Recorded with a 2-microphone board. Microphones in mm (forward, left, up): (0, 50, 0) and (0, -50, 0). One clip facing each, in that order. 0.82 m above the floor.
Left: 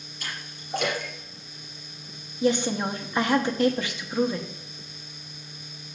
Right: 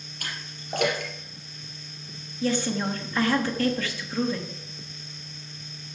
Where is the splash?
55° right (ahead or behind), 3.5 m.